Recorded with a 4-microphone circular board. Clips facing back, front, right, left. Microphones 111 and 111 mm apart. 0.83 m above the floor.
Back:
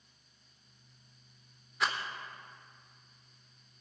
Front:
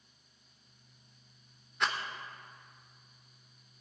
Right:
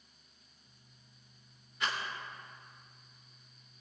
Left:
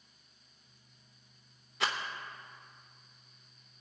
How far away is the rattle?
About 1.0 m.